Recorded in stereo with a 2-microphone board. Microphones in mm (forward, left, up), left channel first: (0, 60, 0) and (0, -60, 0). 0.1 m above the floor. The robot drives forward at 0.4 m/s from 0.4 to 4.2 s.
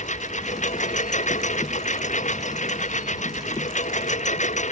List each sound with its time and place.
0.0 s a lawn mower: 90° left; by 4.7 s 85° left